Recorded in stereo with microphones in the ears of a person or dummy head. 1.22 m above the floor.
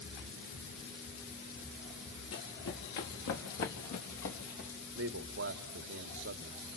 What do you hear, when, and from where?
2.3 s running footsteps: 70° left (ahead or behind), 3.5 m; by 4.7 s 55° left (ahead or behind), 4 m
5.0 s a man speaking: 60° right (ahead or behind), 1.4 m